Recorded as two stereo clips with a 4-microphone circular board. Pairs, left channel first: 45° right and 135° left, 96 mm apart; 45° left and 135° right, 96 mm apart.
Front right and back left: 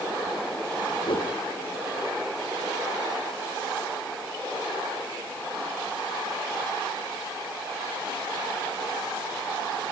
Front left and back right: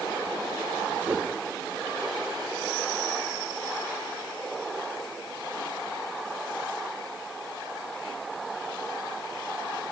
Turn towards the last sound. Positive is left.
turn(degrees=-60)